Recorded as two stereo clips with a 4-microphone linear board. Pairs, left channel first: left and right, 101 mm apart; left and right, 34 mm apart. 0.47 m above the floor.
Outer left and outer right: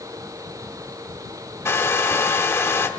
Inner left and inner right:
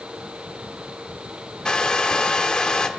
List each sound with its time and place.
1.6 s a hair dryer: 25° left (ahead or behind), 0.9 m